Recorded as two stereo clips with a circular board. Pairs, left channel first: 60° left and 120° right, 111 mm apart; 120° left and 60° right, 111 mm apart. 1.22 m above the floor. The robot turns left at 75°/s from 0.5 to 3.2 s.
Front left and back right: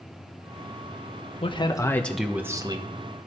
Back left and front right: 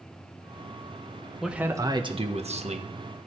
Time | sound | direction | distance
1.4 | a man speaking | 30° left | 1.2 m